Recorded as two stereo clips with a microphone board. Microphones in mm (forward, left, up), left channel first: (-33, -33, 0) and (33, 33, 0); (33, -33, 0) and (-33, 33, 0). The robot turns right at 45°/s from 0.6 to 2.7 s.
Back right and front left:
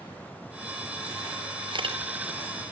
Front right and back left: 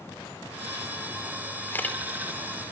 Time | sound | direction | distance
1.7 | a camera shutter | 20° left | 2.5 m